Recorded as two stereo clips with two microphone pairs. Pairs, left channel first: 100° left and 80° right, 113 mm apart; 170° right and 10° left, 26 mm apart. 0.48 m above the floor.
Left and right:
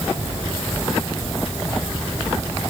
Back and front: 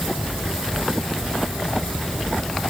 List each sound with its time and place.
Only background noise.